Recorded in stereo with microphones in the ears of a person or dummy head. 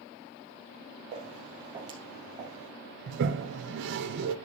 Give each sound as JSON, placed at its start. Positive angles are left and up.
{"t": 1.1, "sound": "footsteps", "side_deg": -40, "distance_m": 3.0}
{"t": 3.1, "sound": "a toilet flushing", "side_deg": -70, "distance_m": 0.9}